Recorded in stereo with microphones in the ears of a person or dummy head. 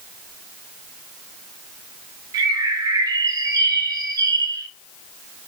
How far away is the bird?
About 0.7 m.